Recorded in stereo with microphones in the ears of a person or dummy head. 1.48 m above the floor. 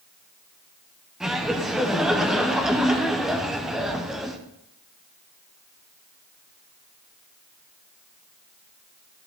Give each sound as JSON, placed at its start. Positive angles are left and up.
{"t": 1.2, "sound": "laughter", "side_deg": -5, "distance_m": 1.0}